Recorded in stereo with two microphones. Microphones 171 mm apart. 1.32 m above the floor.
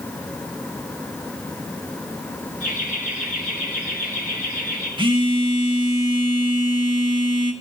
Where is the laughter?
50° left (ahead or behind), 9 m; by 4.9 s 60° left (ahead or behind), 7 m.